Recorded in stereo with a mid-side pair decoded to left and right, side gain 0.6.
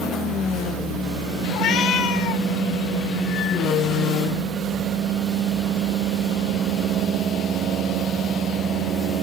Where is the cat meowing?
65° left, 1.5 m.